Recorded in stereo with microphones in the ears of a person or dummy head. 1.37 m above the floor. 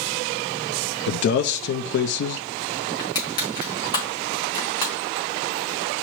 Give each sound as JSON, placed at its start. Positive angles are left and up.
{"t": 1.1, "sound": "a man speaking", "side_deg": 55, "distance_m": 0.5}
{"t": 3.0, "sound": "crushing", "side_deg": 25, "distance_m": 3.5}